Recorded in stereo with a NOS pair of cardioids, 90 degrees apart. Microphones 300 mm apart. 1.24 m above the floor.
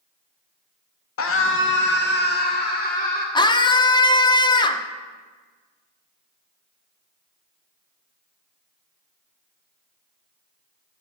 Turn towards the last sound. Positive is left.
turn(degrees=15)